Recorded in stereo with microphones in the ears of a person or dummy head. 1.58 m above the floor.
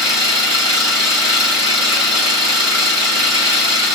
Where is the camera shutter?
I don't hear a camera shutter.